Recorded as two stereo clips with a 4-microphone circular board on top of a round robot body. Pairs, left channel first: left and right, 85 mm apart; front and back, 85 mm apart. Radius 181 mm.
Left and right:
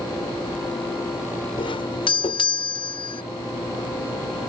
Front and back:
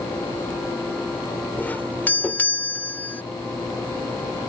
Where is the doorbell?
70° left.